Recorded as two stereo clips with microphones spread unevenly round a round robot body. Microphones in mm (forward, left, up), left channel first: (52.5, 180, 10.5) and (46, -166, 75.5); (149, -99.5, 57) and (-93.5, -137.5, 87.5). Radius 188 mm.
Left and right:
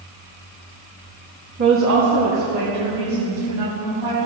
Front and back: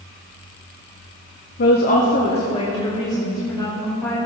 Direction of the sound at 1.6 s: 25° right.